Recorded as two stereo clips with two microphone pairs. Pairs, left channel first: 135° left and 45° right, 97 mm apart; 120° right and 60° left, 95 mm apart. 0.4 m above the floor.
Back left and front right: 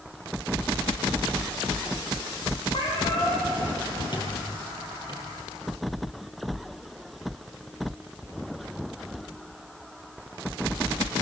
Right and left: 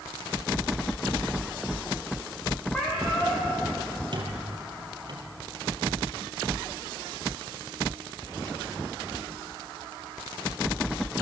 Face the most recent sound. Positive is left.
turn(degrees=95)